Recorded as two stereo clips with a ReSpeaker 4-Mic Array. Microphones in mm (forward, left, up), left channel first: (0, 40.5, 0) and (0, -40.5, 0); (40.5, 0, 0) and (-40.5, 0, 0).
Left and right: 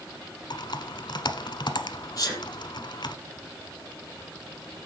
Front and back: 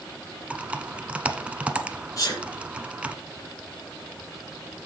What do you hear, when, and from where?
0.5 s typing on a keyboard: 105° left, 1.0 m
2.2 s a sneeze: 45° left, 6.5 m